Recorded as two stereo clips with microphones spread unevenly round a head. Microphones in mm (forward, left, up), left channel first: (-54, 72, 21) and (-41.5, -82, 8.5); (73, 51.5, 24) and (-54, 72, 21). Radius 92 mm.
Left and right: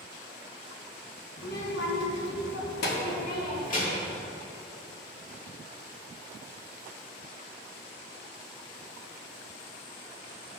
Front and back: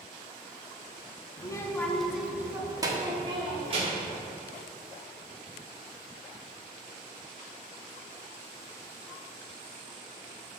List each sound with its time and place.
1.4 s a child speaking: 50° left, 1.2 m; by 4.1 s 130° left, 2.5 m